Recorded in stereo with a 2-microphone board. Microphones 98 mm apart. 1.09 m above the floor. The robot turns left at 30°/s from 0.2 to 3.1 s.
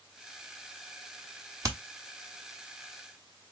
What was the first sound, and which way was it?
Hammering, 30° right (ahead or behind).